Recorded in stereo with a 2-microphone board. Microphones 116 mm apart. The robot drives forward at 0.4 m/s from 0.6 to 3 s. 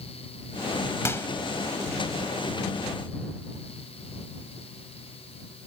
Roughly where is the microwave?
Left.